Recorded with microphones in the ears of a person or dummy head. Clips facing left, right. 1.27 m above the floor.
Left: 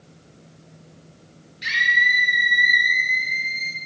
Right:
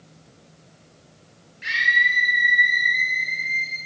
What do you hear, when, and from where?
1.6 s a scream: 55° left (ahead or behind), 5.5 m